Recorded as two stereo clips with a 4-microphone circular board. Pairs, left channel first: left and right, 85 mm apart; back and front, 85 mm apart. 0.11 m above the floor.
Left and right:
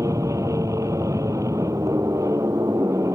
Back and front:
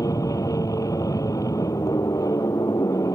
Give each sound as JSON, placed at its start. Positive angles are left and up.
{"t": 0.0, "sound": "an aircraft", "azimuth_deg": -135}